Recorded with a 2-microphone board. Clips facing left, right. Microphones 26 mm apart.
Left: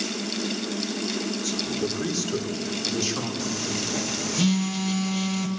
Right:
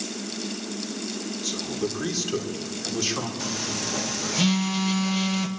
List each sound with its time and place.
1.4 s a man speaking: 15° right (ahead or behind), 3 m
3.4 s a phone buzzing: 15° right (ahead or behind), 1.8 m